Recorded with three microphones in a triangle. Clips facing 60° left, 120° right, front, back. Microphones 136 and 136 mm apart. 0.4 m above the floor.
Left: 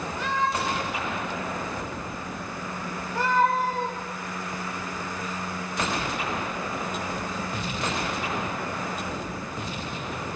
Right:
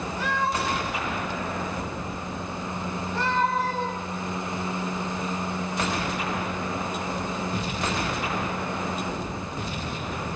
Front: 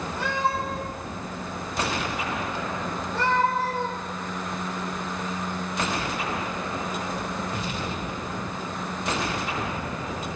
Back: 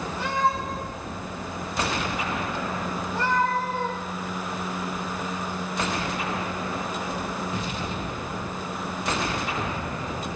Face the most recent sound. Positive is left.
turn(degrees=-20)